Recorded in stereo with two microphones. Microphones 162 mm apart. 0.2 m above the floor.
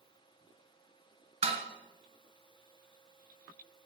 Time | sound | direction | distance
1.4 | dishes clattering | 40° right (ahead or behind) | 1.4 m